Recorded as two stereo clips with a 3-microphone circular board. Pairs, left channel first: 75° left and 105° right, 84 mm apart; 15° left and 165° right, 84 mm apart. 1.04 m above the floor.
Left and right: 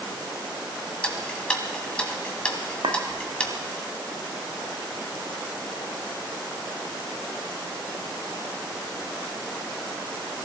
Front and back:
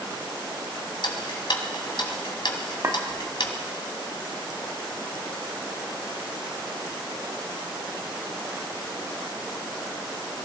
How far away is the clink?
About 0.9 m.